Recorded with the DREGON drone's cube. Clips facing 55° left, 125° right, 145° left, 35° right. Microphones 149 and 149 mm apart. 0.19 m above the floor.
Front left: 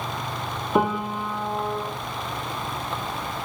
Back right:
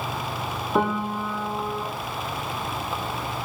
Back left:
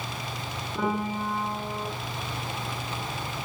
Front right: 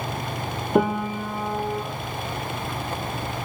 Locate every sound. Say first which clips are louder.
0.8 s a piano: front left 1 dB, front right 7 dB; 25° right, 6 m